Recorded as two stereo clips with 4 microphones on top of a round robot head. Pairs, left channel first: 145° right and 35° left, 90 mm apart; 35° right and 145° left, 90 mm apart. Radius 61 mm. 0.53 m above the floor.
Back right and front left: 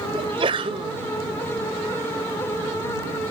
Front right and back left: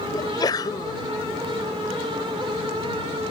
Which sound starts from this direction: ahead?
A sneeze, at 0.1 s.